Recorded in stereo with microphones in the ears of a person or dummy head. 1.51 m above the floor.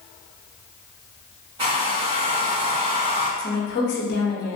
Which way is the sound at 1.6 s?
25° right (ahead or behind).